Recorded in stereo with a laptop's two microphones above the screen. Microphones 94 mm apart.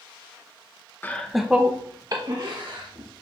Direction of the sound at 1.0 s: 20° left (ahead or behind).